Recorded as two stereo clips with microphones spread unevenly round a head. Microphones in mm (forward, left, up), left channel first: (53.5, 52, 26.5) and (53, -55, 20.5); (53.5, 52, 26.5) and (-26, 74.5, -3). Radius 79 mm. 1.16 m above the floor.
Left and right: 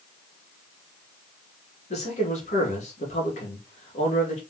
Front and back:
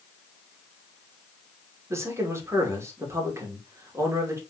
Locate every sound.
1.9 s a man speaking: 115° left, 2.5 m